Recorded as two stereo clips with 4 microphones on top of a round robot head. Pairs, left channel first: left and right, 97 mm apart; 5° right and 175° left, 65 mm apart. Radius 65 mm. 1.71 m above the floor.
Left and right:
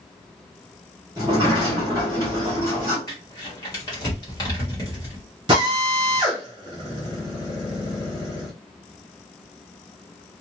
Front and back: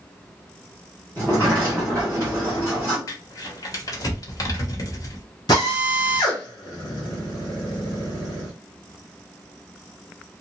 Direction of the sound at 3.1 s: 30° left.